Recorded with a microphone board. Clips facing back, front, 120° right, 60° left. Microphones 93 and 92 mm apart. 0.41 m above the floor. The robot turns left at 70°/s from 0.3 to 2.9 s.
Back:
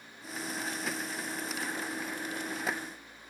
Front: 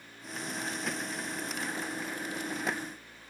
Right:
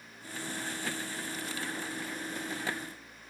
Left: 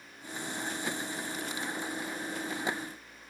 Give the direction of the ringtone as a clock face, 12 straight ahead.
No ringtone in this recording.